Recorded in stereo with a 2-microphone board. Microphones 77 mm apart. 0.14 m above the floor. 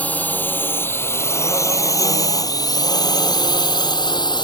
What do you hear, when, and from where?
0.0 s a drone: 20° left (ahead or behind); by 4.5 s 75° left (ahead or behind)